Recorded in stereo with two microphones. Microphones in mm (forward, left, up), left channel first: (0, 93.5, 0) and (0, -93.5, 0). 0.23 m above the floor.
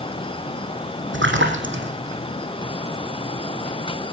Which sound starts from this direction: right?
A splash, at 1.1 s.